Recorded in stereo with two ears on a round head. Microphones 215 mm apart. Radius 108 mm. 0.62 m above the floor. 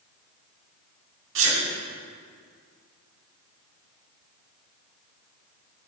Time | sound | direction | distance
1.4 | a sneeze | 55° right (ahead or behind) | 1.6 m